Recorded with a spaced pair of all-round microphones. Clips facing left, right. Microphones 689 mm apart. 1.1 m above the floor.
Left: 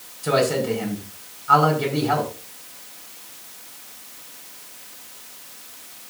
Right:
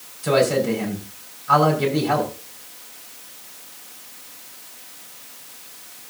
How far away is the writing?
No writing in this recording.